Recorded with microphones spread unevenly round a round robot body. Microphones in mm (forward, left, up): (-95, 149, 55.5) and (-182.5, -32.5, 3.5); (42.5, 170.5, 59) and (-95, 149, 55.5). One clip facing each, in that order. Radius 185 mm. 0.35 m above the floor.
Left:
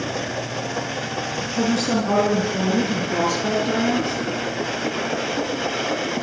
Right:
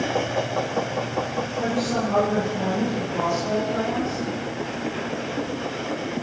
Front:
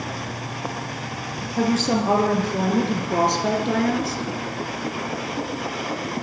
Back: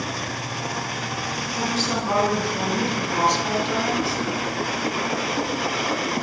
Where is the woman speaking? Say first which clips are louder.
Left 5 dB, front 6 dB; 50° left, 7.5 m; by 4.2 s 40° left, 5 m.